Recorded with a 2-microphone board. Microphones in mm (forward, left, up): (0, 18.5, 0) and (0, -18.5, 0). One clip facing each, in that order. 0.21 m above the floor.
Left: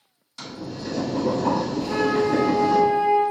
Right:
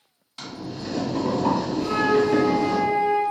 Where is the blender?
No blender in this recording.